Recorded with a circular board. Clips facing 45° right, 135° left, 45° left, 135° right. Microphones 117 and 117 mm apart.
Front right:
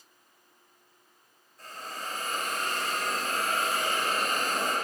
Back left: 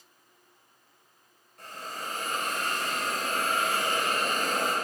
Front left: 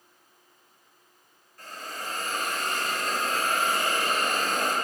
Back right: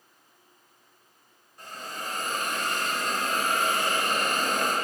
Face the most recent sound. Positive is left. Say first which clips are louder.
# back left 1 dB, even
turn(degrees=155)